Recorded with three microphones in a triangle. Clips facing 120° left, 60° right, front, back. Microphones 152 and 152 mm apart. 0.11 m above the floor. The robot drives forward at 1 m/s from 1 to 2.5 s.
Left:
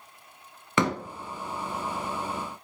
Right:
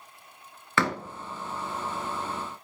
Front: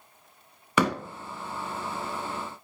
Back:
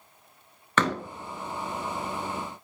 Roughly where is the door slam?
Left.